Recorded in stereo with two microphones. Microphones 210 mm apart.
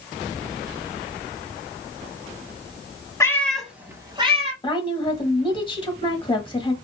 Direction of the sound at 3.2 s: 15° left (ahead or behind).